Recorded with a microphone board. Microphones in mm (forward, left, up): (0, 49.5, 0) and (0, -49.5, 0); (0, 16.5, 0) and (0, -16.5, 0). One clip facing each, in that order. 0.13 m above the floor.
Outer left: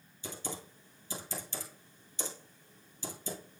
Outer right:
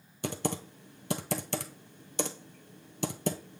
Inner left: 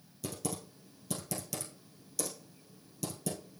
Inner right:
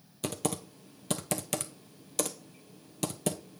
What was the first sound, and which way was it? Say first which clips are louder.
Typing on a keyboard: outer right 9 dB, inner right 6 dB; 70° right (ahead or behind).